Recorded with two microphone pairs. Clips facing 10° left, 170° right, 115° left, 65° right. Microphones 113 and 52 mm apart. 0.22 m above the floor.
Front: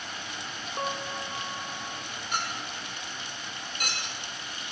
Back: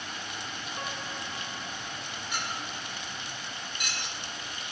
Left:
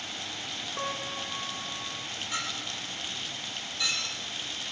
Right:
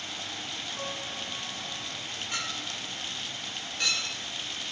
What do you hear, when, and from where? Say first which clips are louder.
0.8 s a piano: front 7 dB, left 5 dB; 60° left, 0.8 m
2.3 s a clink: front 3 dB, even; 30° right, 5 m